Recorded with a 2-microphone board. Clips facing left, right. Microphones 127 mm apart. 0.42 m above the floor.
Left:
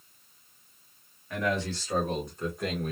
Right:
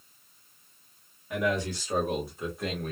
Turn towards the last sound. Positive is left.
turn(degrees=5)  # may be behind; listen again after turning